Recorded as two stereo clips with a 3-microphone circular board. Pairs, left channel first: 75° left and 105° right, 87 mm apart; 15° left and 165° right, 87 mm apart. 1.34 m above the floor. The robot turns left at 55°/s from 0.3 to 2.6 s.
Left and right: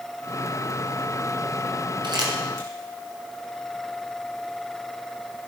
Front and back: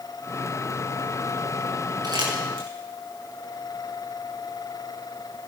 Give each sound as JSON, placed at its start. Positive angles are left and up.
{"t": 2.0, "sound": "crumpling", "azimuth_deg": -125, "distance_m": 5.5}